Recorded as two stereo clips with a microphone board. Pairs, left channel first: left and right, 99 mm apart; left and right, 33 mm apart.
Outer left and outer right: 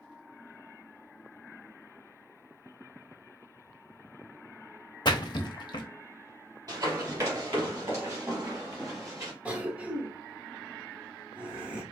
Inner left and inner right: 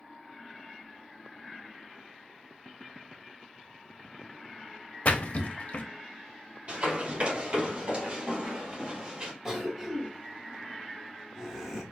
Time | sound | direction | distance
5.0 | a splash | 50° left (ahead or behind) | 0.6 m
6.7 | running footsteps | 40° right (ahead or behind) | 2.5 m
9.4 | a cough | 15° right (ahead or behind) | 1.2 m